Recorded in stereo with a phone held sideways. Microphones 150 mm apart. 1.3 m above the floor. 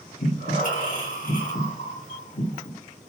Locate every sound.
0.2 s breathing: 65° left (ahead or behind), 1.5 m